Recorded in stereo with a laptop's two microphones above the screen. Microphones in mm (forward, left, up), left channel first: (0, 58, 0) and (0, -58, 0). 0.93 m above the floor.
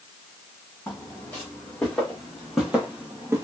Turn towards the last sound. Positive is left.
turn(degrees=-25)  # may be behind; listen again after turning